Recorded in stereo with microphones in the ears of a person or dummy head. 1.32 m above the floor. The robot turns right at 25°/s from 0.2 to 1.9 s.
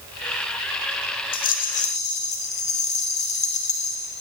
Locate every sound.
1.3 s a rattle: 40° left (ahead or behind), 0.6 m; by 4.2 s 30° left (ahead or behind), 0.6 m